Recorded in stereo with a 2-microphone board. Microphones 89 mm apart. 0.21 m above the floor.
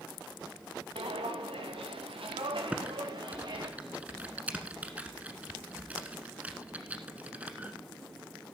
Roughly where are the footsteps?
Right.